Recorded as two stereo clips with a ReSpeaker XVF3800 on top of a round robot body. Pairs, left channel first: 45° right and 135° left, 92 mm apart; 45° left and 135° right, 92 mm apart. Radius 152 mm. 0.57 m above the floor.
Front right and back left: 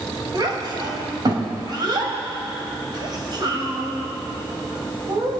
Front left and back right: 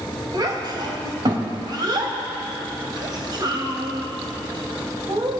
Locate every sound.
0.3 s a child speaking: straight behind, 2.5 m